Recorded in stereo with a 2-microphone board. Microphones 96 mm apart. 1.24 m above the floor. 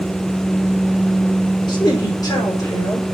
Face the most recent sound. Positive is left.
turn(degrees=35)  # may be behind; listen again after turning